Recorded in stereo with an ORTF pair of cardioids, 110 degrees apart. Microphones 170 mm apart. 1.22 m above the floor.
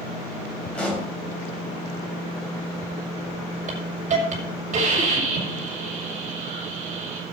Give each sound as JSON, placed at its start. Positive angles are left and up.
{"t": 0.8, "sound": "a pop", "azimuth_deg": 5, "distance_m": 6.0}
{"t": 3.7, "sound": "a hiss", "azimuth_deg": -45, "distance_m": 6.0}